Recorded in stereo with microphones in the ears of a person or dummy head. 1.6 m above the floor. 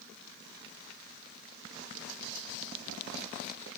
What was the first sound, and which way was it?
Only background noise.